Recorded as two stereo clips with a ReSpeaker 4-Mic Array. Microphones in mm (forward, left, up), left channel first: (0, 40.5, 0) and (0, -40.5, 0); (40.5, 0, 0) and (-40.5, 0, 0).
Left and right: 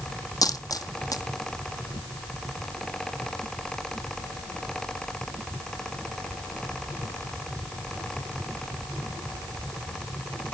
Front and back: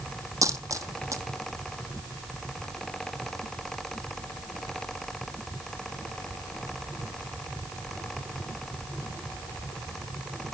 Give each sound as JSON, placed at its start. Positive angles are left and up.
{"t": 0.4, "sound": "a dropped coin", "azimuth_deg": 130, "distance_m": 0.7}